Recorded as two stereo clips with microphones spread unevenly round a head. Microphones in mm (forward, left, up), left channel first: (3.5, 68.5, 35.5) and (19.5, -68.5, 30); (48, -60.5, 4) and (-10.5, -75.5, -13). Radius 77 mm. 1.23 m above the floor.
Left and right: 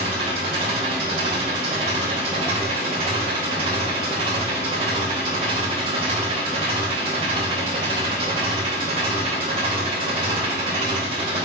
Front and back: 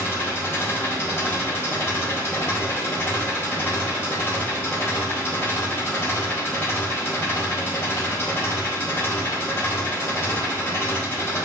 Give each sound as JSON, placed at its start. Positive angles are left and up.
{"t": 0.0, "sound": "an engine running", "azimuth_deg": -35, "distance_m": 4.0}